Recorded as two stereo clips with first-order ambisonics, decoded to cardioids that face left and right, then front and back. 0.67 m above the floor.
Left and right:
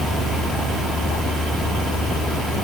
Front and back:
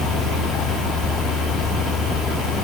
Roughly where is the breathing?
I don't hear breathing.